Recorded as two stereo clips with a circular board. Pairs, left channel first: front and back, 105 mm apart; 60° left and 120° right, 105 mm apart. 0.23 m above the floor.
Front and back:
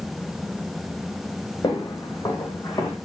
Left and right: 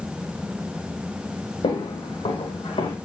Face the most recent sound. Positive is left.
turn(degrees=60)